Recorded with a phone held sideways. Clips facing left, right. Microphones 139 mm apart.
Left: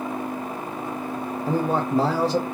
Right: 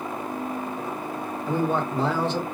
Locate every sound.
1.5 s a man speaking: 35° left (ahead or behind), 0.8 m